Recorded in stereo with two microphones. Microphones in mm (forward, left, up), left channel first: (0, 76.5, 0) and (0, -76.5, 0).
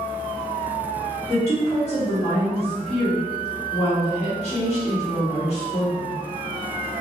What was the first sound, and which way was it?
A woman speaking, 45° left (ahead or behind).